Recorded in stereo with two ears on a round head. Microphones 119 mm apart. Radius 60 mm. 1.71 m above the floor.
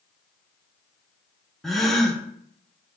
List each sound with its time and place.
1.6 s a gasp: centre (ahead or behind), 1.0 m